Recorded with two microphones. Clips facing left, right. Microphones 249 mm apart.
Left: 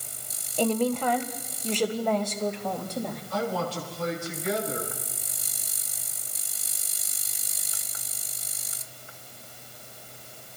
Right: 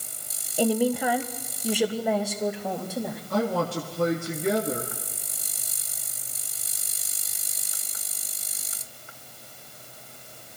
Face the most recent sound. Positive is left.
turn(degrees=-55)  # may be behind; listen again after turning